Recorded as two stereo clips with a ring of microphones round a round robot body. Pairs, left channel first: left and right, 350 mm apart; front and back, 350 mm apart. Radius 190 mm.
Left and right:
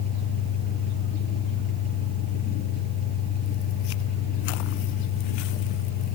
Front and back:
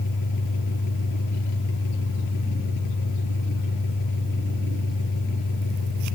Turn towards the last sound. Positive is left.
turn(degrees=35)